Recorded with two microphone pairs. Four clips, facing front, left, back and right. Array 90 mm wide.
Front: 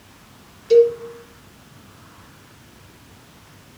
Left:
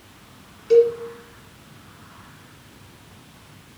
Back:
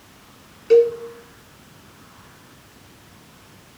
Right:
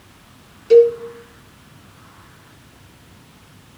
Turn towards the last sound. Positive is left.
turn(degrees=-170)